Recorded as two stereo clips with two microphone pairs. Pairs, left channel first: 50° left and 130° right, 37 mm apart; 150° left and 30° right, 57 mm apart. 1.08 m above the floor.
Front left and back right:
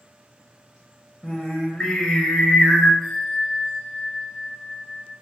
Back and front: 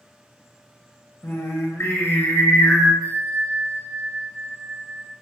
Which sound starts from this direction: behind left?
Singing, at 1.2 s.